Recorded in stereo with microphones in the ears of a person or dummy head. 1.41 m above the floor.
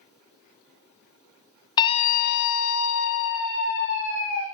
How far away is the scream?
About 1.2 m.